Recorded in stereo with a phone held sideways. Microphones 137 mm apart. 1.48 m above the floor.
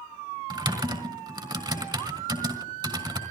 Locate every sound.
0.5 s typing on a keyboard: 30° right (ahead or behind), 3.5 m